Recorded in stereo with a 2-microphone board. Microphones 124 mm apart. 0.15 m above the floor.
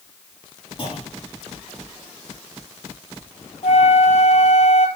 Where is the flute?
65° left (ahead or behind), 1.4 m.